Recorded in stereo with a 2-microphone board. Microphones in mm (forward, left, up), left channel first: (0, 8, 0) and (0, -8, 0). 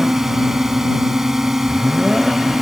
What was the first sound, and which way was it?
A drone, 25° right (ahead or behind).